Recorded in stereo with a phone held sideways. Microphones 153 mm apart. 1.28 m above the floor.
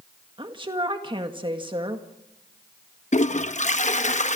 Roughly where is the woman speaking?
Right.